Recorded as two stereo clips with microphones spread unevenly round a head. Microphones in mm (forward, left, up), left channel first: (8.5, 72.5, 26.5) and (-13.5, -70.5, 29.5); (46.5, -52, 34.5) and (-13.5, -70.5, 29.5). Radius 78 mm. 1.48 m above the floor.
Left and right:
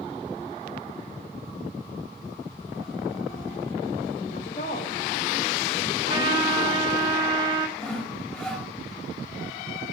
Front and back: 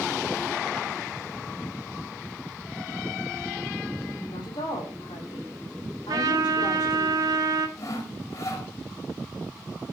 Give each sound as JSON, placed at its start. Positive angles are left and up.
{"t": 4.3, "sound": "a woman speaking", "azimuth_deg": 40, "distance_m": 4.0}
{"t": 6.1, "sound": "a trumpet", "azimuth_deg": -155, "distance_m": 1.2}
{"t": 7.8, "sound": "sawing", "azimuth_deg": -5, "distance_m": 2.0}